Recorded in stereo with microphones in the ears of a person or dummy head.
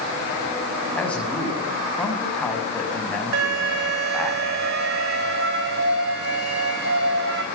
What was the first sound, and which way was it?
A man speaking, centre (ahead or behind).